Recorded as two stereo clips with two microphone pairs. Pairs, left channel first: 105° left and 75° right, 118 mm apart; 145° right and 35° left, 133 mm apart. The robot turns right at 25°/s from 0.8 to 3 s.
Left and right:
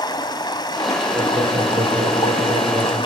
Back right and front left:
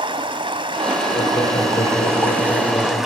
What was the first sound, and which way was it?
Running water, 70° left.